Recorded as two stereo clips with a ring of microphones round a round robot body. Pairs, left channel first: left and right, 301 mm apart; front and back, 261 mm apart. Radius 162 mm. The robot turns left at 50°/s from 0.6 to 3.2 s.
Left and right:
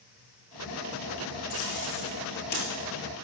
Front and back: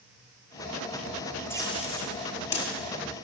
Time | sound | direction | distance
1.5 | tape being pulled | 80° left | 5.5 m